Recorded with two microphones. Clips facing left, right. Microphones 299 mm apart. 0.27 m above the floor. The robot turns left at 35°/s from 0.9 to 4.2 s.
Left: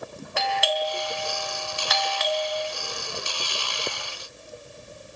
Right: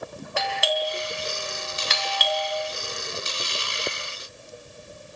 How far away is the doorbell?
About 3.5 m.